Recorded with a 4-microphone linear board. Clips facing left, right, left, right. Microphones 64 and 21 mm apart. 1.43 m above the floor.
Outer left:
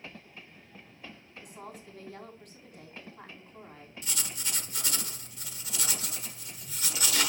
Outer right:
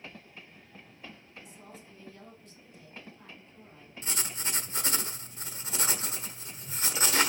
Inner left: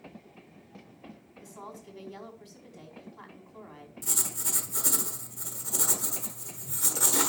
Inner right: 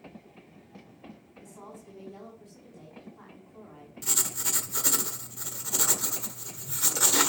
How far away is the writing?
About 1.3 m.